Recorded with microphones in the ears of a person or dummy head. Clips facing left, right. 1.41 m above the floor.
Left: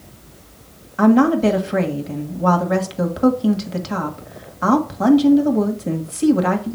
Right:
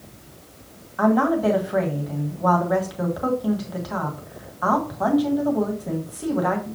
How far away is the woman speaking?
About 1.7 m.